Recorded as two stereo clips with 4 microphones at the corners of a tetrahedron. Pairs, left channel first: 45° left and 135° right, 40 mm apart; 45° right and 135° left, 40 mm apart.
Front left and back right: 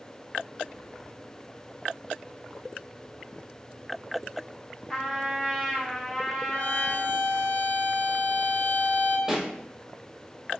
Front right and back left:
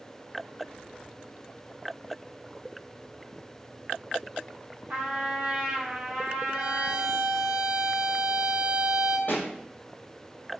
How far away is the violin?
About 0.8 m.